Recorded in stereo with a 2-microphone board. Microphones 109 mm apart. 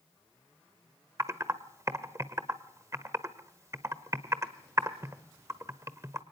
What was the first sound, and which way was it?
Typing on a keyboard, 30° right (ahead or behind).